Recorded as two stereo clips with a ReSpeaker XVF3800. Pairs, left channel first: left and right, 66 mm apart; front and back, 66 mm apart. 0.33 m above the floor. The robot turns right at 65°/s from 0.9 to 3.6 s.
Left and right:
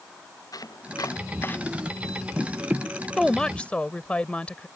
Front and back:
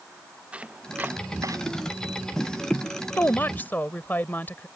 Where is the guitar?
I don't hear a guitar.